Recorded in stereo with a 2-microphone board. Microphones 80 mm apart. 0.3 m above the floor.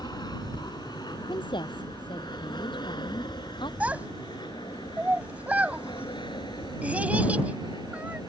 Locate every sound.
0.0 s an aircraft: 60° left (ahead or behind); by 8.3 s 75° left (ahead or behind)
1.3 s a woman speaking: 80° left
3.8 s a child speaking: 15° right (ahead or behind)